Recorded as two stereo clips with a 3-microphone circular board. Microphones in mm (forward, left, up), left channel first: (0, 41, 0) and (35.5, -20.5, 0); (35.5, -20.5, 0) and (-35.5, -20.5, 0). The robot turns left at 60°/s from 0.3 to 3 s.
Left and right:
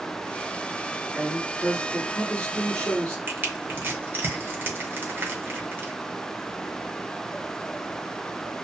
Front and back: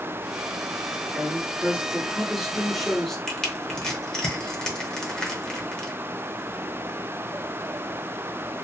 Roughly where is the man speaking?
Behind.